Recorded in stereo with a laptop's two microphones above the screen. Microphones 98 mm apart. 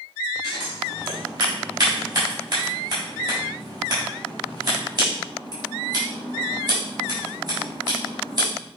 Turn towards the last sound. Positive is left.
turn(degrees=-50)  # may be behind; listen again after turning